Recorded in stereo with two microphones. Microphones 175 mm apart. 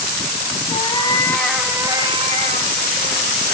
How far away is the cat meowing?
About 1.5 m.